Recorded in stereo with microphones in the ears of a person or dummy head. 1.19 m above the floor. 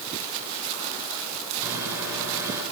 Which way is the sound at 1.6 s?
20° right (ahead or behind).